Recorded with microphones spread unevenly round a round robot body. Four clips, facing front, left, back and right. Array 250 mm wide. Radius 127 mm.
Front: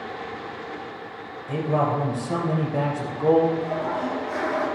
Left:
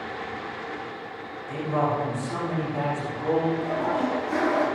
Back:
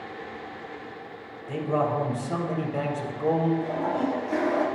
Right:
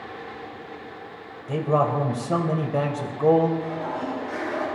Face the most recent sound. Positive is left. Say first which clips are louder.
# left 4 dB, front 1 dB
turn(degrees=140)